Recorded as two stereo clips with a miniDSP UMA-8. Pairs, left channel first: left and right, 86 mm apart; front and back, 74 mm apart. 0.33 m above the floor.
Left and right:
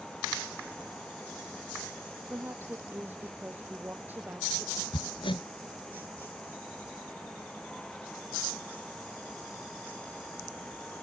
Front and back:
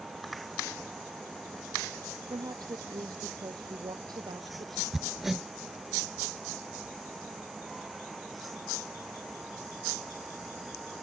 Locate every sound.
2.3 s a woman speaking: 155° right; by 4.8 s 160° right
4.9 s hammering: 95° left